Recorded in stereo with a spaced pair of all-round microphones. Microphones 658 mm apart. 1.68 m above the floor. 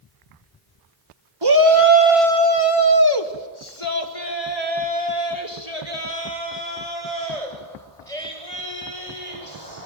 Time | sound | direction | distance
1.4 | a shout | 35° right (ahead or behind) | 1.6 m